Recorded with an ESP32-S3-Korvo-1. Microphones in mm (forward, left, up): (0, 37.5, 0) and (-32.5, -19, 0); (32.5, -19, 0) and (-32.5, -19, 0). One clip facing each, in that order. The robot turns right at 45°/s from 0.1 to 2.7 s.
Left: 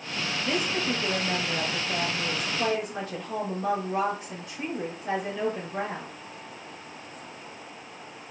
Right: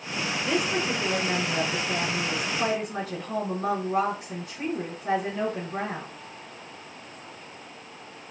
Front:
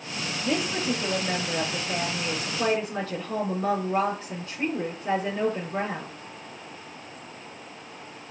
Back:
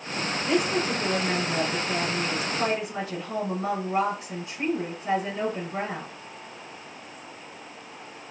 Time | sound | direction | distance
0.4 | a woman speaking | 150° left | 4 m